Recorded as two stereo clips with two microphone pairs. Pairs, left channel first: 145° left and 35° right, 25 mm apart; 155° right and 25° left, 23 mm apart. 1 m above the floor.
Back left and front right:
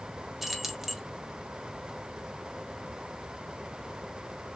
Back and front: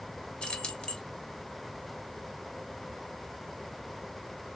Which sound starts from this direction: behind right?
Keys jangling, at 0.4 s.